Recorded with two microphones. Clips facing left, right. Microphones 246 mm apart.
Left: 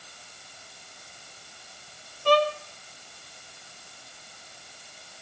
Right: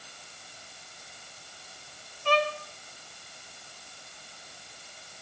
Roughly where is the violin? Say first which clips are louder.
Left 5 dB; left.